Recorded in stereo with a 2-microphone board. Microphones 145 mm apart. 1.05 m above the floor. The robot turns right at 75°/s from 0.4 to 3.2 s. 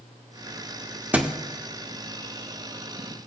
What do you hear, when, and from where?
1.1 s a thud: 10° right (ahead or behind), 0.7 m; by 1.3 s 5° right (ahead or behind), 0.7 m